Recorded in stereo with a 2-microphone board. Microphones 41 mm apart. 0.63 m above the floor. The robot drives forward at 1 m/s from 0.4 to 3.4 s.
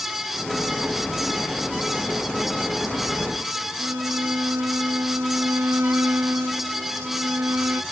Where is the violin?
75° right (ahead or behind).